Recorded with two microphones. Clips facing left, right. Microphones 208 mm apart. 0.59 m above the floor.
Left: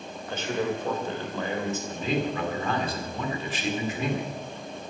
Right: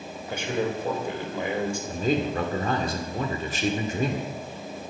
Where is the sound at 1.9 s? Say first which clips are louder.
Right 4 dB; 45° right (ahead or behind), 2 m.